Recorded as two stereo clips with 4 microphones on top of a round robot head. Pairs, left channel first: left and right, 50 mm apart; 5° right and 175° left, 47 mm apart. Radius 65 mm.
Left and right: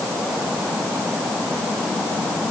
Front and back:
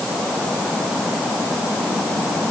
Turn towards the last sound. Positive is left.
No sound to turn to.